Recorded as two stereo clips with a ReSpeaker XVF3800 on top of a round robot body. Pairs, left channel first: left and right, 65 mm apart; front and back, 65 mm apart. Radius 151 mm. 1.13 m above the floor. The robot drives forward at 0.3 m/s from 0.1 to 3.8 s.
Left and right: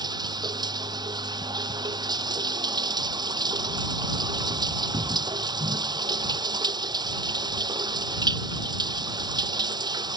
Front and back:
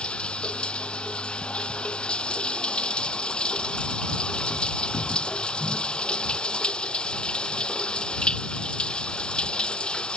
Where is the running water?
75° right.